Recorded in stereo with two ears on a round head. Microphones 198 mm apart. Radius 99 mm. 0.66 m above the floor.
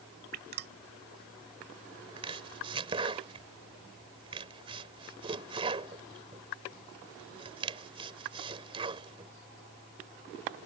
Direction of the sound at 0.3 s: 45° right (ahead or behind).